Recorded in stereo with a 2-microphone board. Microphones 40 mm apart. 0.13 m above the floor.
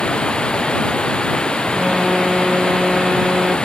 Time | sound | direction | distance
0.0 | running water | 25° left (ahead or behind) | ?
1.7 | an alarm | 15° right (ahead or behind) | ?